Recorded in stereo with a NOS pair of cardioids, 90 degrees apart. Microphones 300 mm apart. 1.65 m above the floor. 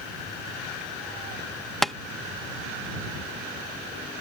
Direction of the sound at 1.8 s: Straight ahead.